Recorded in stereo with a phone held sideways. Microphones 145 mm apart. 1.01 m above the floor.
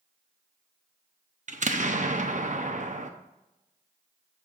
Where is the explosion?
60° right (ahead or behind), 0.8 m.